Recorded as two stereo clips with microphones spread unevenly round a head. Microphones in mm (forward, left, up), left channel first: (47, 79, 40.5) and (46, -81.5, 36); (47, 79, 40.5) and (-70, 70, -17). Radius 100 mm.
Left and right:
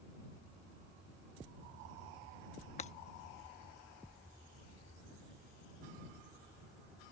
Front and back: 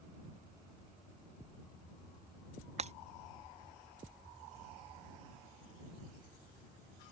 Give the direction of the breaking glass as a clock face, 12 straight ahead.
7 o'clock.